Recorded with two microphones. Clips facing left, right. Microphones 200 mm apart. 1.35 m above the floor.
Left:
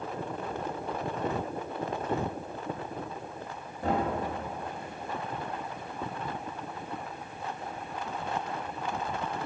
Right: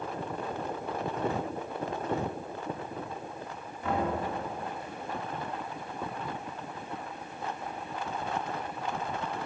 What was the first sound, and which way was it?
Knocking, 35° left (ahead or behind).